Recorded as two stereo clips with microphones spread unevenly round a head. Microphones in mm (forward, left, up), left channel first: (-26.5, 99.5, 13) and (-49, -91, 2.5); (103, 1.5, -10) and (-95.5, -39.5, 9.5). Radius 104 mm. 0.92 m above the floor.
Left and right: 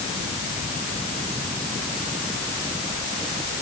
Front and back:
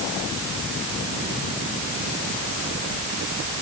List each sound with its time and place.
Only background noise.